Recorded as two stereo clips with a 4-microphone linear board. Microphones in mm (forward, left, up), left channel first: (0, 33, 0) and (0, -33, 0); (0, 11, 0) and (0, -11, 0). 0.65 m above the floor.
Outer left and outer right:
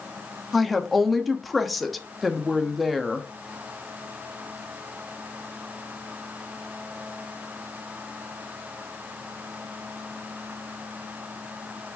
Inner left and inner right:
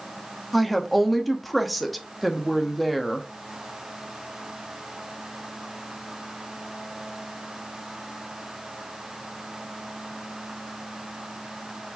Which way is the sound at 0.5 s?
Centre (ahead or behind).